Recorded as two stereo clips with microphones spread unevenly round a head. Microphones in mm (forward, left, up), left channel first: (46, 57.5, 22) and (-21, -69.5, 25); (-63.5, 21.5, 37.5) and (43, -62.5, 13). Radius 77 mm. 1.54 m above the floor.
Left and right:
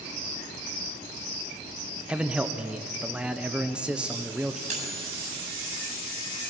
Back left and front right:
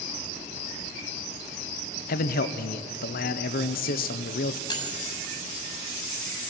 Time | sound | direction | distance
2.1 | a man speaking | 160° left | 0.9 m
4.7 | cutlery clinking | 165° right | 7.5 m